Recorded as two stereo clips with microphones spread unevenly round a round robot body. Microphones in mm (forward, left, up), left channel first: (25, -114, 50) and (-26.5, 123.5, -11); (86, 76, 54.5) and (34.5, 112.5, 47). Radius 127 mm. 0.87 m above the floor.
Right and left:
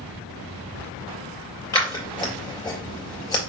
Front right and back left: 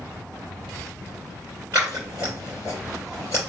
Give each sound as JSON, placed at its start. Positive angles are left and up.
{"t": 1.7, "sound": "scissors", "azimuth_deg": -155, "distance_m": 2.5}